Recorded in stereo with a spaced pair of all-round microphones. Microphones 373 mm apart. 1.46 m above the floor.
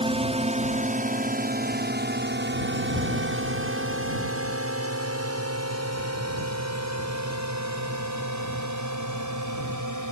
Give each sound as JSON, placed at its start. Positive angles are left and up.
{"t": 0.0, "sound": "a drone", "side_deg": -15}